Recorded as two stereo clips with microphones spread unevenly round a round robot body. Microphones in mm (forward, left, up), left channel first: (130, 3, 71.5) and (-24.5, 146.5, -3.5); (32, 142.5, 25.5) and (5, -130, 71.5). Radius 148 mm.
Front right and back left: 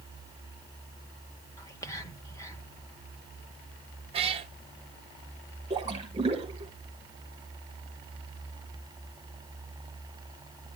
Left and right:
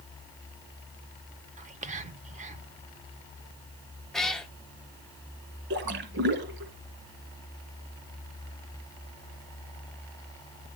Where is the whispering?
145° right, 0.9 m.